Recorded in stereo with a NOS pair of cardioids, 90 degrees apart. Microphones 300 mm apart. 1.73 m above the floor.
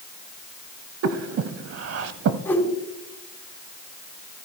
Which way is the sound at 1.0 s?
55° right.